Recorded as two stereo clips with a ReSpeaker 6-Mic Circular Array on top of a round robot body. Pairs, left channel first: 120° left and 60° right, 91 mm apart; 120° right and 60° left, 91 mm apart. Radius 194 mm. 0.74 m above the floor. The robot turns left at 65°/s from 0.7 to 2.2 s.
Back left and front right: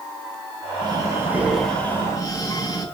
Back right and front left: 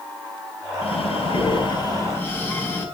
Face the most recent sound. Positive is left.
turn(degrees=170)